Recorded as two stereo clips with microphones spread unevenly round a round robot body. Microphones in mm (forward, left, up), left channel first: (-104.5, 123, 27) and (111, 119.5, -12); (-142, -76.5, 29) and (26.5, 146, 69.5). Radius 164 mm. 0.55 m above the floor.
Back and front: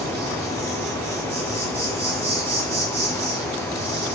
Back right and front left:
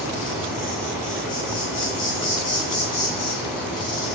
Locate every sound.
0.0 s an insect: 60° right, 2 m